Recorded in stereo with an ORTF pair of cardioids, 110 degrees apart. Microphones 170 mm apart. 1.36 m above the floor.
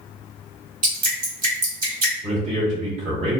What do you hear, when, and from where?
0.8 s dripping: 55° right, 1.5 m
2.2 s a man speaking: 40° right, 1.3 m